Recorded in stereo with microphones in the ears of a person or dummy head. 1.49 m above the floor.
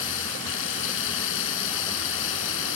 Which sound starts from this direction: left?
Running water, at 0.0 s.